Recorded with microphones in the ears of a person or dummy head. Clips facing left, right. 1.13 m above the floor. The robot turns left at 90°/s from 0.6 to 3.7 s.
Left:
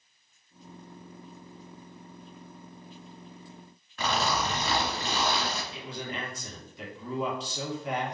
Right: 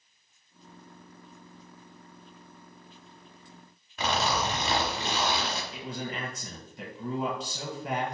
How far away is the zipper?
About 1.2 m.